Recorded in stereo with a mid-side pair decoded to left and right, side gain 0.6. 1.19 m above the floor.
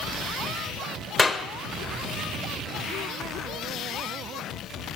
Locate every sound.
1.2 s a clap: 20° left, 0.8 m